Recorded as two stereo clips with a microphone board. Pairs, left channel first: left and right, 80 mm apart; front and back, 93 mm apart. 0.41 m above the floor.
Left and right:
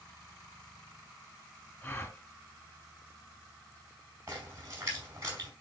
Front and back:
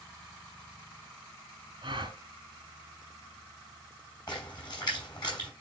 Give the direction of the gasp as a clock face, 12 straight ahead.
7 o'clock.